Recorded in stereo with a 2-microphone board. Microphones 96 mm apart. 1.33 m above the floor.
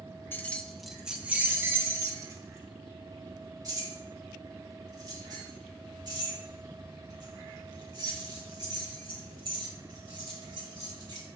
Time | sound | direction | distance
0.3 | keys jangling | 20° left (ahead or behind) | 0.7 m